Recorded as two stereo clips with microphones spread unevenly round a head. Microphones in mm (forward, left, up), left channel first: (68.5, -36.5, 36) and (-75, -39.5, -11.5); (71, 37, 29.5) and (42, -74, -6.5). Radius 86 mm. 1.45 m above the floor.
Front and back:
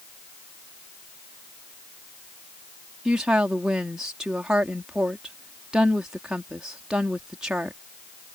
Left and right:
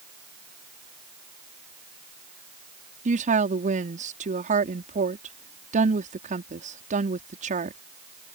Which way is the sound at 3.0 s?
95° right.